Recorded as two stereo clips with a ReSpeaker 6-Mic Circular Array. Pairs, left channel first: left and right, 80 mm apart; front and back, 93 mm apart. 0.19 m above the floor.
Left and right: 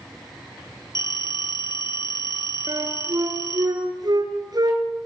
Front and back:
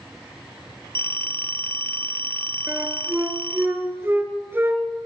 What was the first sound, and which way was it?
A phone ringing, 65° left.